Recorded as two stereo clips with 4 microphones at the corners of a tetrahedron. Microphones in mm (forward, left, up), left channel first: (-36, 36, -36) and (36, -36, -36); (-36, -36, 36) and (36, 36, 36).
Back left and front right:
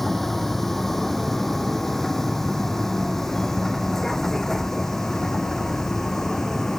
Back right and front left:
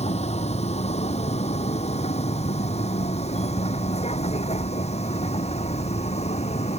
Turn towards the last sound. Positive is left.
turn(degrees=-140)